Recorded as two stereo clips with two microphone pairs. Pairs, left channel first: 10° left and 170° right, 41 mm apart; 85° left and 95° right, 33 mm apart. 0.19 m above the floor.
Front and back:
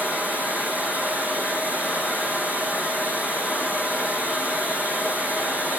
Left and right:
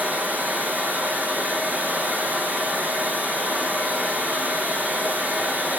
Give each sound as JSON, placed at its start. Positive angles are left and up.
{"t": 0.0, "sound": "running water", "azimuth_deg": -125, "distance_m": 3.5}